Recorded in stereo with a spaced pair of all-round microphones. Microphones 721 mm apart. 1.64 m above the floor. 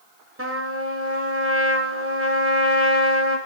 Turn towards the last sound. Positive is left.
turn(degrees=-20)  # may be behind; listen again after turning